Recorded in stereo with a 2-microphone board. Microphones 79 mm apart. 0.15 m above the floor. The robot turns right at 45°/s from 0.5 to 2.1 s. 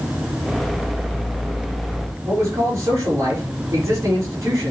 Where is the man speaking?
40° right (ahead or behind), 3.5 m.